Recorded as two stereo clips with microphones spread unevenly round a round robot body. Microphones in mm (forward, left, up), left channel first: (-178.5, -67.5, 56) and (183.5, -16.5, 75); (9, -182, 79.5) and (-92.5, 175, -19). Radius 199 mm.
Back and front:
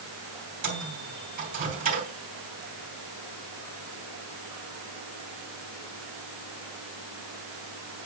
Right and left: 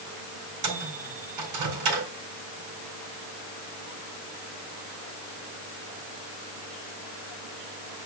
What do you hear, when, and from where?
0.6 s a microwave: 80° left, 4 m